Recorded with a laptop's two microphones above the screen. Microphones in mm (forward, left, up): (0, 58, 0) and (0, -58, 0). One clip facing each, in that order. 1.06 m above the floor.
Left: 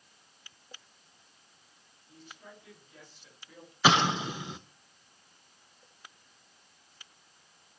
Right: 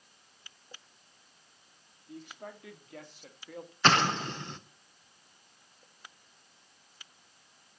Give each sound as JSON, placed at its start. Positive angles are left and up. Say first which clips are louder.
{"t": 2.1, "sound": "a man speaking", "louder": "right 7 dB", "side_deg": -75, "distance_m": 3.0}
{"t": 3.8, "sound": "an explosion", "louder": "left 1 dB", "side_deg": 10, "distance_m": 0.8}